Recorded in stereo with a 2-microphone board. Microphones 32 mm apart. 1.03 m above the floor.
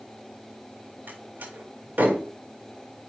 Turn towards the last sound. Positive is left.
turn(degrees=-85)